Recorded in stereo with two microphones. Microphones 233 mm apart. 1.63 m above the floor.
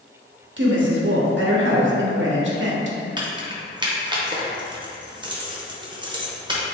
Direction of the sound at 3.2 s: 20° right (ahead or behind).